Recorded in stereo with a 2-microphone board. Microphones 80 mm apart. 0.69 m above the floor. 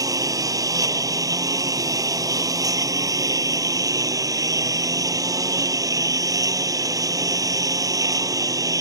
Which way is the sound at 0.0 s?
45° right (ahead or behind).